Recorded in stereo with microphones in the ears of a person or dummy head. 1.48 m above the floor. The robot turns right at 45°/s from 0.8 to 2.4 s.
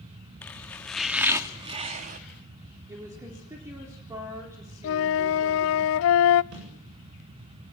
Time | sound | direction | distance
0.4 | chopping | 175° left | 1.6 m
2.9 | a woman speaking | 25° right (ahead or behind) | 4 m
4.8 | a flute | 70° left (ahead or behind) | 0.6 m
6.5 | a snare drum | 75° right (ahead or behind) | 8.5 m